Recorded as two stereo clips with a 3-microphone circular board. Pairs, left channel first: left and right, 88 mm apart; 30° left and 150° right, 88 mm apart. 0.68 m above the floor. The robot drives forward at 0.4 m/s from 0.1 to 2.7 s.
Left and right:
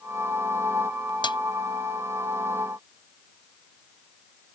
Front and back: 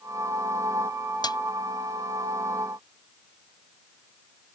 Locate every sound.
1.2 s a snare drum: 65° left